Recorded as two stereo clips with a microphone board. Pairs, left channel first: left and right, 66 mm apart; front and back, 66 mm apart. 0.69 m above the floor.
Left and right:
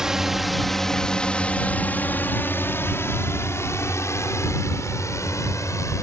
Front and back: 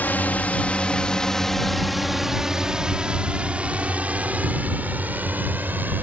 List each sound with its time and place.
0.0 s a drone: 20° right; by 6.0 s 120° left